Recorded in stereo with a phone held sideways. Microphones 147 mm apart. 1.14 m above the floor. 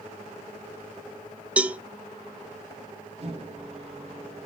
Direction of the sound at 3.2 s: 45° right (ahead or behind).